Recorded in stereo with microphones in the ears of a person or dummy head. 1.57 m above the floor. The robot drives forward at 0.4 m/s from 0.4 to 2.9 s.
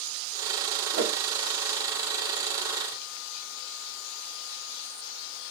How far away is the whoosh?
About 1.1 m.